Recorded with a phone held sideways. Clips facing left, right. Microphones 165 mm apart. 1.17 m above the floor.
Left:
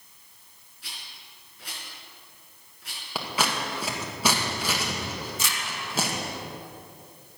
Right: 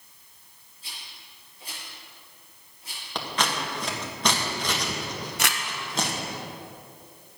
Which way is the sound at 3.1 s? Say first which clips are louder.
Even; 5° left (ahead or behind).